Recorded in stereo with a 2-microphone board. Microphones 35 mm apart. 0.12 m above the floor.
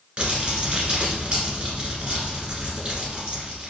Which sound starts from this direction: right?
Crumpling, at 0.2 s.